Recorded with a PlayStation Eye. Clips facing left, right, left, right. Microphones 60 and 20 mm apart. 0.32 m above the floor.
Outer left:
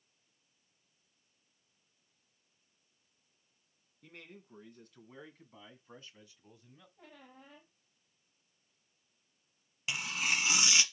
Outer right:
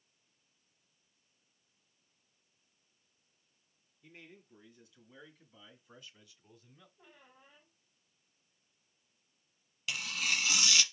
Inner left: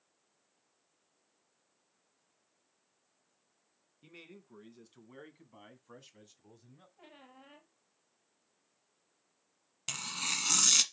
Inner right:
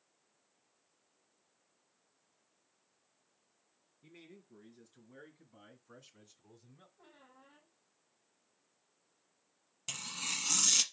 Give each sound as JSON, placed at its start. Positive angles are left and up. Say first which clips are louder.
{"t": 4.0, "sound": "a man speaking", "louder": "outer left 2 dB, inner left 3 dB", "side_deg": 65, "distance_m": 3.0}
{"t": 7.0, "sound": "a squeak", "louder": "outer left 9 dB, inner left 8 dB", "side_deg": 80, "distance_m": 4.0}
{"t": 9.9, "sound": "tearing paper", "louder": "outer left 1 dB, inner left 3 dB", "side_deg": 25, "distance_m": 1.1}